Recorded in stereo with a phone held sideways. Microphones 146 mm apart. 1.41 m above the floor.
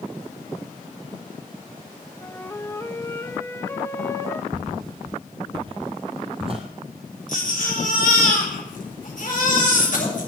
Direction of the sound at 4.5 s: 30° right (ahead or behind).